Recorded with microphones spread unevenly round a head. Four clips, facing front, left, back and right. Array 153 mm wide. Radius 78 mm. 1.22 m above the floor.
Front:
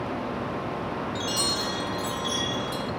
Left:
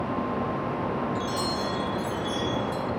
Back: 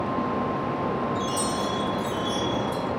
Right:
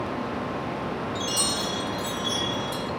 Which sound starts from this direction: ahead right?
A chime, at 1.1 s.